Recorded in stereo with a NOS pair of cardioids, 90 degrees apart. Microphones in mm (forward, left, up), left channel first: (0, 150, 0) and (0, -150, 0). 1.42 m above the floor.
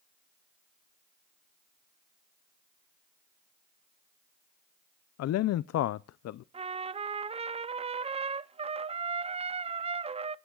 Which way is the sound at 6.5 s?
20° right.